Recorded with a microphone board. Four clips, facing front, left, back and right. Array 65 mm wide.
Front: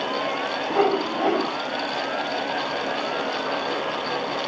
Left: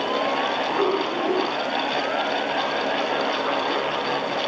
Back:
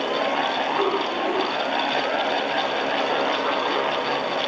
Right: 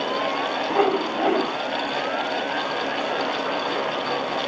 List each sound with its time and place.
0.7 s a whoosh: 50° right, 2 m